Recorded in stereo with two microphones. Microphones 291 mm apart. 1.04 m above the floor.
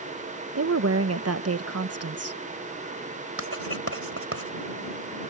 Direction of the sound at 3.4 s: 50° right (ahead or behind).